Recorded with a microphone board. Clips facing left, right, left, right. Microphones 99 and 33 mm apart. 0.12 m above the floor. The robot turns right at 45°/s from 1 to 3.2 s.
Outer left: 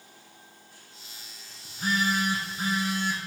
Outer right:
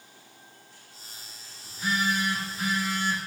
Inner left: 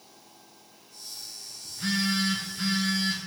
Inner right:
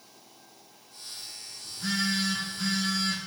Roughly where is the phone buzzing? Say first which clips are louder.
Outer left 1 dB, inner left 1 dB; left.